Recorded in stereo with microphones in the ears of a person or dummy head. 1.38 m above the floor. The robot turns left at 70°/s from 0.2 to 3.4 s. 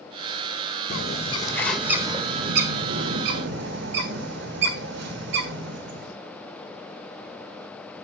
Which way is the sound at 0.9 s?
55° left.